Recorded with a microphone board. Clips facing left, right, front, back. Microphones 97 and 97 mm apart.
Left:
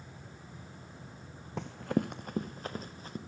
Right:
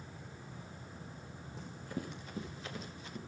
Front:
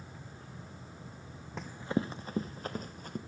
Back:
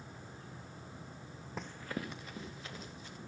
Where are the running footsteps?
90° left, 0.6 m; by 3.2 s 40° left, 2.5 m.